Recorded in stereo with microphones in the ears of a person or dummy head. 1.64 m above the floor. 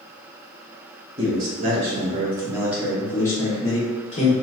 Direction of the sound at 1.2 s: 55° right (ahead or behind).